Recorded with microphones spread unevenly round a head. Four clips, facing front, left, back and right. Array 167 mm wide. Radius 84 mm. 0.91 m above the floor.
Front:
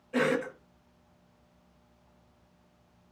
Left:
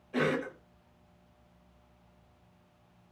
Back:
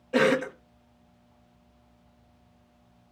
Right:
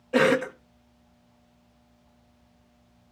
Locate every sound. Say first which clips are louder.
0.1 s a cough: right 9 dB, back 5 dB; 120° right, 1.0 m